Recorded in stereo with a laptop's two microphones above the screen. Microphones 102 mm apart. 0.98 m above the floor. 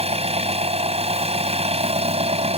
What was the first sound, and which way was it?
An engine running, 80° right.